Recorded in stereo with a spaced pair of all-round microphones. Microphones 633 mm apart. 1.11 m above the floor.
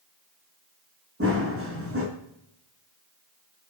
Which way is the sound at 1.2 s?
20° right (ahead or behind).